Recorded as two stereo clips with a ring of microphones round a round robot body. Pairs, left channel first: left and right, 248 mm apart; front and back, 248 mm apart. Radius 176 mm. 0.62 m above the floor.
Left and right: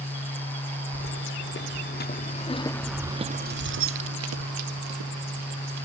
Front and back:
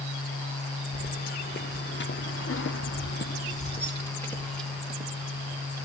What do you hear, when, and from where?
0.9 s keys jangling: 55° left, 1.8 m; by 5.8 s 100° right, 2 m